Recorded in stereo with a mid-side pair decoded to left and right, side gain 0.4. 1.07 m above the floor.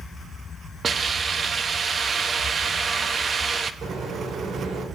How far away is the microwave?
About 4 m.